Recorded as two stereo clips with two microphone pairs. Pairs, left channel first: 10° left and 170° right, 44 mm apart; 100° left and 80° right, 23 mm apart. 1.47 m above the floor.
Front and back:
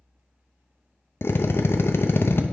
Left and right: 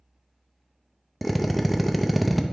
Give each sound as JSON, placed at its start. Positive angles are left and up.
{"t": 1.2, "sound": "a drill", "azimuth_deg": 10, "distance_m": 0.5}